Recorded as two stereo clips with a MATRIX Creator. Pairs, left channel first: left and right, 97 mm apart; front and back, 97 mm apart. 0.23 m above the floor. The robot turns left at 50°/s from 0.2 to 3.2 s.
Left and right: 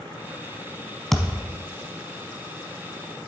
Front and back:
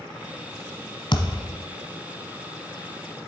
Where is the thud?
5° left, 0.9 m; by 1.6 s 20° right, 0.9 m.